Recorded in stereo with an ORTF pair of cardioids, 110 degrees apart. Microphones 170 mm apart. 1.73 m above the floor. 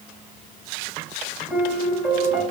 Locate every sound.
1.5 s a piano: 5° right, 4 m